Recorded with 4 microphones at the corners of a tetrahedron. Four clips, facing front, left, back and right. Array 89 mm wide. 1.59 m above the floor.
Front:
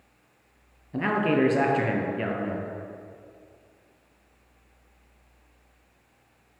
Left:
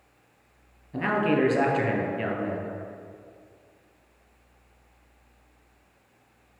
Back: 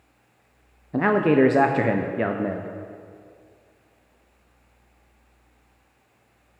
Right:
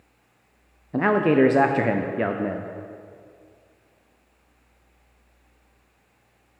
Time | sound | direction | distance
0.9 | a man speaking | 135° right | 0.5 m